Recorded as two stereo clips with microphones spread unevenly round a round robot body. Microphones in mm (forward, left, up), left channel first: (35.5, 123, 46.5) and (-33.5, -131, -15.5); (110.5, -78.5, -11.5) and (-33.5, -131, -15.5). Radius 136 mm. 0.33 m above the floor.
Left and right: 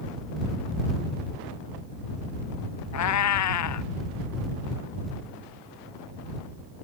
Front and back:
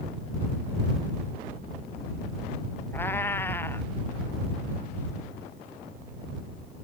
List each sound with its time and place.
2.9 s a cat meowing: 105° left